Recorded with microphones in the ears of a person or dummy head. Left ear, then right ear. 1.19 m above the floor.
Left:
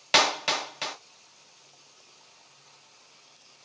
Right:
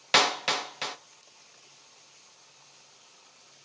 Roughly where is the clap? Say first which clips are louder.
Left 1 dB; centre.